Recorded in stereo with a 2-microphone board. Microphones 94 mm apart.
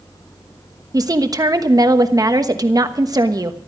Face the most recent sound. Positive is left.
turn(degrees=-40)  # may be behind; listen again after turning